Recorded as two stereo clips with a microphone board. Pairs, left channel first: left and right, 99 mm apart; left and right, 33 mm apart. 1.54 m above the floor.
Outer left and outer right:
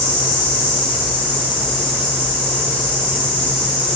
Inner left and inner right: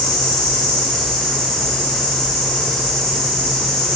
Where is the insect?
15° left (ahead or behind), 3.5 m.